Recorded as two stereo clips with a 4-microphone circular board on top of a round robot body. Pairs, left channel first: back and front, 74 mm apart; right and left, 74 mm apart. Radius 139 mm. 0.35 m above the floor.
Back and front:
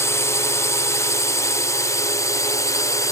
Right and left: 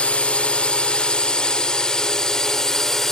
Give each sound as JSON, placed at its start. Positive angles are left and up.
{"t": 0.0, "sound": "a drone", "azimuth_deg": -160}